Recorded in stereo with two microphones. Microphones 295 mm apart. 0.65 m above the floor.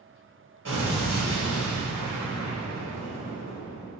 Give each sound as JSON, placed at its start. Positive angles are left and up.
{"t": 0.7, "sound": "an explosion", "side_deg": -90, "distance_m": 1.3}